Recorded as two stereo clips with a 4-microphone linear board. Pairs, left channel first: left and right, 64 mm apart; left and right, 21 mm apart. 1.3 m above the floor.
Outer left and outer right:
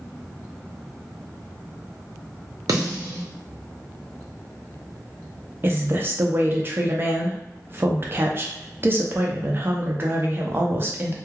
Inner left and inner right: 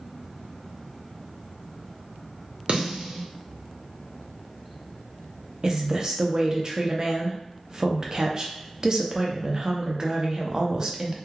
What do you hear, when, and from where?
2.7 s a snare drum: 65° right (ahead or behind), 0.7 m
5.6 s a woman speaking: 35° right (ahead or behind), 0.5 m